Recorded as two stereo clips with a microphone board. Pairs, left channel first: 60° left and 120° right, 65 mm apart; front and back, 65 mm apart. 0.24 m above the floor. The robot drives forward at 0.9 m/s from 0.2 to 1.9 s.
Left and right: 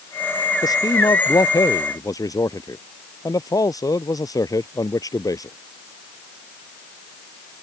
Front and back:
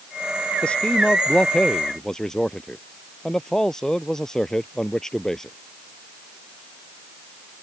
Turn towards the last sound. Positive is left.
turn(degrees=80)